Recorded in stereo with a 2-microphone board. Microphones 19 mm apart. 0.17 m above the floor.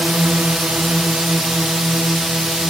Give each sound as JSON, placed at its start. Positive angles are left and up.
{"t": 0.0, "sound": "a drone", "side_deg": -75}